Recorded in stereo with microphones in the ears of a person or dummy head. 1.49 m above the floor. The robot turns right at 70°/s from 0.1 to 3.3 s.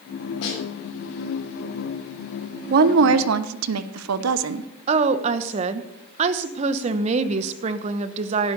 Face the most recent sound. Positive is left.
turn(degrees=-40)  # may be behind; listen again after turning